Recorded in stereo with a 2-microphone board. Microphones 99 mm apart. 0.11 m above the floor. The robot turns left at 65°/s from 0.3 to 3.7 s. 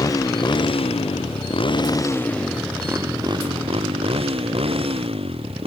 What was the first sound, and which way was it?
A motorcycle, 35° left (ahead or behind).